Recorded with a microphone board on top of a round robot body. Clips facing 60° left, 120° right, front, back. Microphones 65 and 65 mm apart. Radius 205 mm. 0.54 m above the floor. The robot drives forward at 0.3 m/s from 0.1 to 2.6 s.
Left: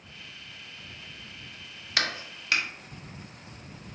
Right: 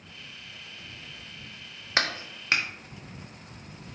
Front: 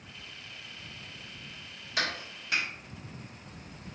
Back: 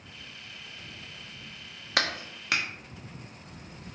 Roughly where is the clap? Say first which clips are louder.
Right 2 dB, back 3 dB; behind.